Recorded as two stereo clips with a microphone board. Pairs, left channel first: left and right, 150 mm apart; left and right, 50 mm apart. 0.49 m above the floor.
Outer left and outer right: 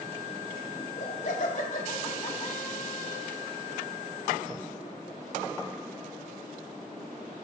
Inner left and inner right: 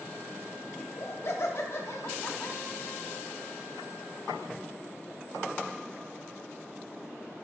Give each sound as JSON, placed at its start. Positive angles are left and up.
{"t": 0.8, "sound": "laughter", "side_deg": 45, "distance_m": 1.3}